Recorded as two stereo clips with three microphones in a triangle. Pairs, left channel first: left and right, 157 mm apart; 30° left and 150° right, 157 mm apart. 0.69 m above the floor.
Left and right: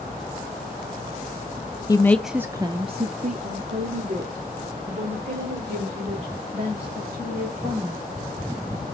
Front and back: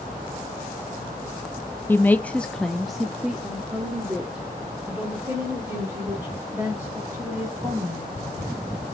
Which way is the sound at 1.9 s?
90° left.